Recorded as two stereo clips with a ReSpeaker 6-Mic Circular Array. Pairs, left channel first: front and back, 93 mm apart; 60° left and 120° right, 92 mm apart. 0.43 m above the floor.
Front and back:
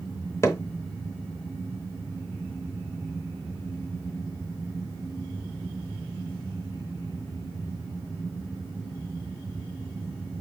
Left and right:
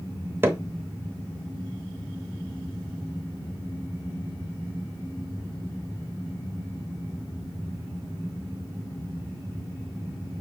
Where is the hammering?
55° right, 1.0 m.